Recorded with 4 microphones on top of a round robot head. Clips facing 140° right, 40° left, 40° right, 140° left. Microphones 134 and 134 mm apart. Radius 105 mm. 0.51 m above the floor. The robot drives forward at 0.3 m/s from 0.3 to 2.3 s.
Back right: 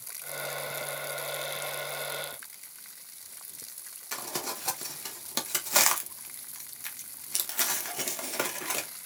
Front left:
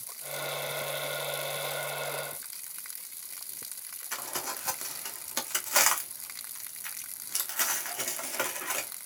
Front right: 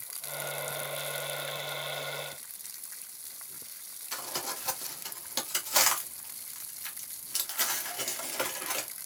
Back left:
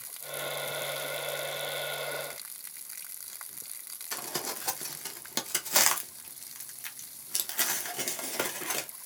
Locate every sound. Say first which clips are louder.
4.1 s crumpling: back right 2 dB, back left 1 dB; 165° left, 0.7 m